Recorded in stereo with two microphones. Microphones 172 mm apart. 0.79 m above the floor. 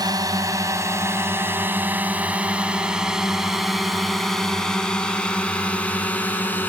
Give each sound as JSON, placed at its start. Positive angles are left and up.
{"t": 0.0, "sound": "a drone", "side_deg": -20}